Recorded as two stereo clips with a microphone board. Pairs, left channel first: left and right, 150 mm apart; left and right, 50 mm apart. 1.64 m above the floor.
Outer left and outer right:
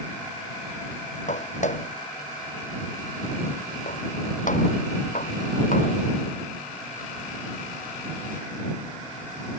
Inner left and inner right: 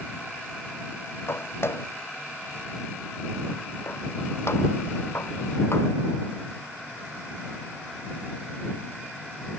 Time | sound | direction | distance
1.3 | footsteps | 55° left (ahead or behind) | ?